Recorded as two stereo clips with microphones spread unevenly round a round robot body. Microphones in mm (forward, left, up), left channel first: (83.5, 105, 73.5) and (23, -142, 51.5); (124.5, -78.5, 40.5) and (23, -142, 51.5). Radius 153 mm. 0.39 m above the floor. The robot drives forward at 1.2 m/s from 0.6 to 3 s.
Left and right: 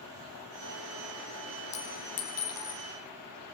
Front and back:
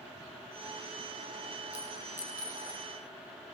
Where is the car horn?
I don't hear a car horn.